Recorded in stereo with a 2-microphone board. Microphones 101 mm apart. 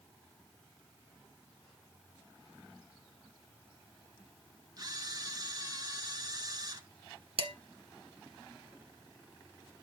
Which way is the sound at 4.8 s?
40° right (ahead or behind).